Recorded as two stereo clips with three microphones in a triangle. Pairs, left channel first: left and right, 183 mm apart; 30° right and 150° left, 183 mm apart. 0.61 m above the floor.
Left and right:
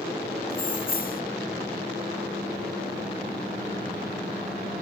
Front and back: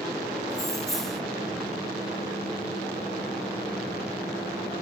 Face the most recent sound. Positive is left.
turn(degrees=55)